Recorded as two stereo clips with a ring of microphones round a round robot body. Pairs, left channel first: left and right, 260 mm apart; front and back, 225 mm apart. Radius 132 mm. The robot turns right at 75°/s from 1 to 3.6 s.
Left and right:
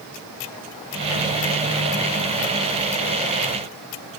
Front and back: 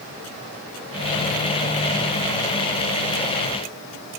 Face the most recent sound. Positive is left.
No sound to turn to.